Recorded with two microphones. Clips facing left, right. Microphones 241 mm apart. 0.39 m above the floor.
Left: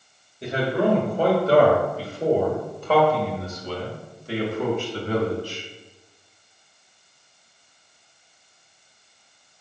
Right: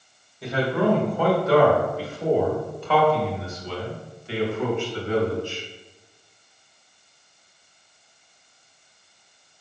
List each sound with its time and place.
0.4 s a man speaking: 20° left (ahead or behind), 1.8 m; by 5.6 s 40° left (ahead or behind), 3 m